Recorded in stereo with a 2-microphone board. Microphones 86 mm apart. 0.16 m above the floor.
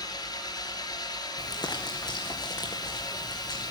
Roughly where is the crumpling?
Left.